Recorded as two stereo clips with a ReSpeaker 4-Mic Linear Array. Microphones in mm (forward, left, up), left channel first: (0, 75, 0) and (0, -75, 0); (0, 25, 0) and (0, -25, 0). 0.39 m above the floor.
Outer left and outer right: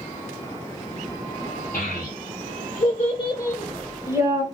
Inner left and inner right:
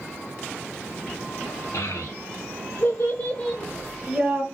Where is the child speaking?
70° left (ahead or behind), 1.2 m; by 4.4 s 30° right (ahead or behind), 0.7 m.